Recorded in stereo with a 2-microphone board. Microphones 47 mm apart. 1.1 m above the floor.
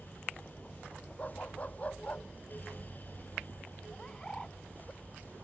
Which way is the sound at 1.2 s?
30° left (ahead or behind).